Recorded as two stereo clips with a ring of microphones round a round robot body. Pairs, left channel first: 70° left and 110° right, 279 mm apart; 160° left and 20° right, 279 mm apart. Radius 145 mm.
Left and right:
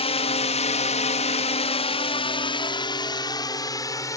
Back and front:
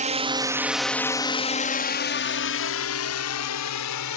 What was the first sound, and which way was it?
A drone, 15° left.